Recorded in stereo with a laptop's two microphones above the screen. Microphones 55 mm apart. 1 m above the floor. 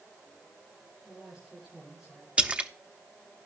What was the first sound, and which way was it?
A man speaking, 15° right (ahead or behind).